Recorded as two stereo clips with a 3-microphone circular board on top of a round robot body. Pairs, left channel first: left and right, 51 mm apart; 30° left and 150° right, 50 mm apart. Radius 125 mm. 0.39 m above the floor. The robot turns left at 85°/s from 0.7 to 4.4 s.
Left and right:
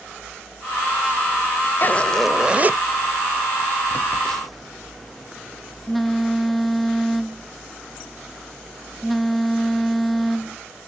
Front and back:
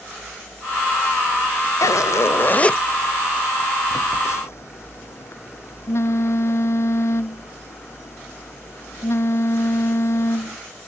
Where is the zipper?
40° left; by 2.8 s 45° right.